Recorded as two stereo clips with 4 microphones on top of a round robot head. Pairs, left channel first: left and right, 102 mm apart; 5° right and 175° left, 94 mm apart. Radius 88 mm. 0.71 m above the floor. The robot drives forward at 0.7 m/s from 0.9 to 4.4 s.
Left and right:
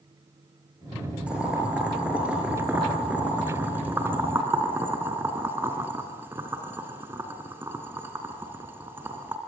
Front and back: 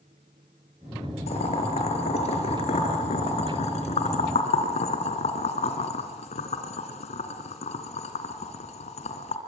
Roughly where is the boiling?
Ahead.